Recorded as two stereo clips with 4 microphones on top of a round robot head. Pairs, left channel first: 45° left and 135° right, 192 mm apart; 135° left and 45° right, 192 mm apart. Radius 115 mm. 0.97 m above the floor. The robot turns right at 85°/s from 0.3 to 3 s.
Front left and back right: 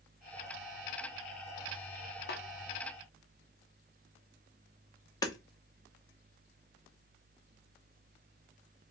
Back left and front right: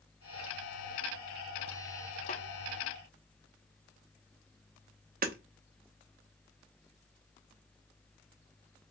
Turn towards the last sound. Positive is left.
turn(degrees=-20)